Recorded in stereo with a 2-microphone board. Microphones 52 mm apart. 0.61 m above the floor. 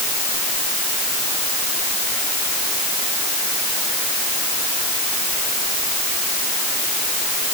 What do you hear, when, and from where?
Only background noise.